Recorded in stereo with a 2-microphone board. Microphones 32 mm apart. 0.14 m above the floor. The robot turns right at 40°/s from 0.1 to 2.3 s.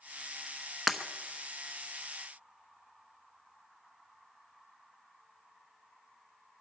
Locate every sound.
0.9 s breaking glass: 5° right (ahead or behind), 0.8 m; by 1.0 s centre (ahead or behind), 0.8 m